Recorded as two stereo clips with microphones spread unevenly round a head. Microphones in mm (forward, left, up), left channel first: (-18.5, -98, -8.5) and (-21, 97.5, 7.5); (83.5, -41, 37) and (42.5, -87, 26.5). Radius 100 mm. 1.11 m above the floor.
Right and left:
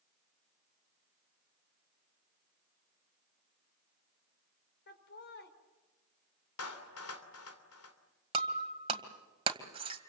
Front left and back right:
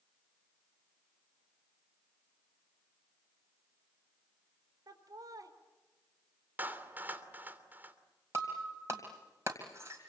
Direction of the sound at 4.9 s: 120° right.